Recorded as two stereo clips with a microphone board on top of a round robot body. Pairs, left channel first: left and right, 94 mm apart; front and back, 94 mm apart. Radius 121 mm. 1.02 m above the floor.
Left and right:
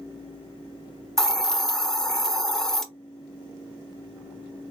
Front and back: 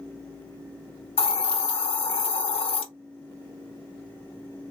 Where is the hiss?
5° left, 0.7 m.